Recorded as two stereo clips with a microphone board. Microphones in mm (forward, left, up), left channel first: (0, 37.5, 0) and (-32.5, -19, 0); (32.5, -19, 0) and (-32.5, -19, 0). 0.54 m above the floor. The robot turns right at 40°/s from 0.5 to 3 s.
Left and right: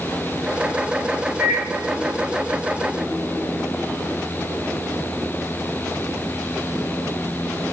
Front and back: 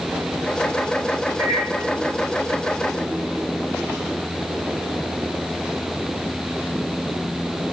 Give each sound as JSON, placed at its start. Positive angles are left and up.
{"t": 1.4, "sound": "a microwave", "azimuth_deg": 180, "distance_m": 1.5}